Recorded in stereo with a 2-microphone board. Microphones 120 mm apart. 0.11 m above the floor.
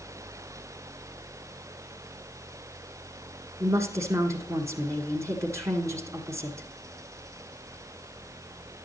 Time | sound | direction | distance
3.6 | a woman speaking | 25° right (ahead or behind) | 1.4 m